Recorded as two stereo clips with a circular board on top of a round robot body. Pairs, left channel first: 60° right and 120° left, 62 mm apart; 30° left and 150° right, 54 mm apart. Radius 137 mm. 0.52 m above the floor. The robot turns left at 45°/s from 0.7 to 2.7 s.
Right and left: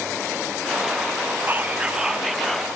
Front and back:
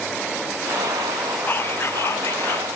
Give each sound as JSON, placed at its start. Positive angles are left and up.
{"t": 1.5, "sound": "whispering", "azimuth_deg": 70}